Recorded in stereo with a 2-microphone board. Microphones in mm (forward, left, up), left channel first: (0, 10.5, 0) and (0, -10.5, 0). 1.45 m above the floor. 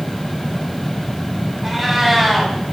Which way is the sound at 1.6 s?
20° right (ahead or behind).